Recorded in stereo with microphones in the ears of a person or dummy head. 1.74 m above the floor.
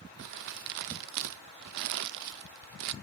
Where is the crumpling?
55° right (ahead or behind), 0.5 m.